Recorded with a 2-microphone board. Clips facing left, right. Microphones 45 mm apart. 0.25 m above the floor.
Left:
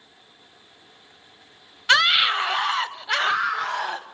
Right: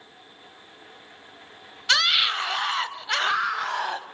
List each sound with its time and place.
1.9 s a scream: 25° left (ahead or behind), 1.0 m; by 4.0 s centre (ahead or behind), 1.2 m